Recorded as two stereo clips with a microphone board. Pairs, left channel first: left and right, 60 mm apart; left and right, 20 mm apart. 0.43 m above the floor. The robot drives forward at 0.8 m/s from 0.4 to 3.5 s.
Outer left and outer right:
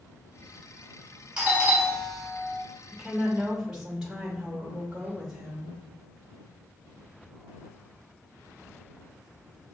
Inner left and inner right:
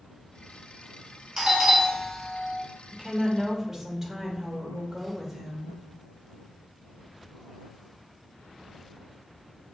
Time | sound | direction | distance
1.4 | a doorbell | 15° right (ahead or behind) | 1.3 m
2.9 | a woman speaking | 15° right (ahead or behind) | 0.8 m